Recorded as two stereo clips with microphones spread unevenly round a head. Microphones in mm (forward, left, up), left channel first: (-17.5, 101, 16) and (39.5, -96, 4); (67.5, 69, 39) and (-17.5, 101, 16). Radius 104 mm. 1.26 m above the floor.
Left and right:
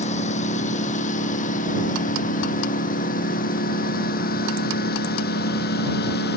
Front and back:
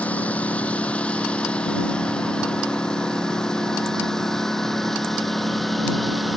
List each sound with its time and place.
0.0 s a lawn mower: 50° left; by 6.4 s 70° left